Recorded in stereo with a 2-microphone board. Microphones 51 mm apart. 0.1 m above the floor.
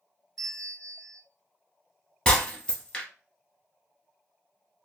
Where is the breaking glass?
20° left (ahead or behind), 1.1 m.